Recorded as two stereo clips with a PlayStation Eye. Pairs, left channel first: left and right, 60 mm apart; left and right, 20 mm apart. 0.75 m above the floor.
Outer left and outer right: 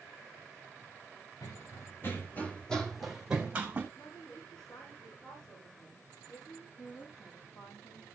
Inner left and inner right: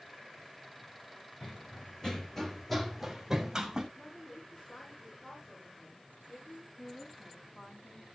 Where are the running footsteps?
55° left (ahead or behind), 3 m; by 3.9 s 25° right (ahead or behind), 3 m.